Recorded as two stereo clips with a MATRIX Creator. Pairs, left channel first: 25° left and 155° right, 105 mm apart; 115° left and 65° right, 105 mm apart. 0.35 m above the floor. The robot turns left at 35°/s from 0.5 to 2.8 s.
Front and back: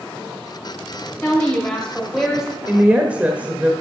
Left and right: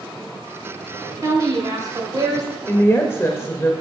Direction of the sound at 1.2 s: 35° right.